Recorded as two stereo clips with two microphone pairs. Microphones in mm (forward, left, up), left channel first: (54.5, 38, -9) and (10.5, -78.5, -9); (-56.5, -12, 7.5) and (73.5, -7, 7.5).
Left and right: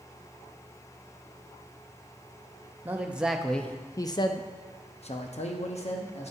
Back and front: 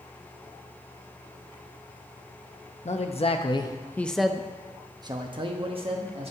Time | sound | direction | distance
2.9 | a man speaking | straight behind | 0.8 m